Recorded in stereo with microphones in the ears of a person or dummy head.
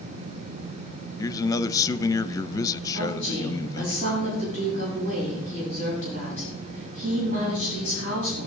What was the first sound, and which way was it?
A man speaking, 15° left (ahead or behind).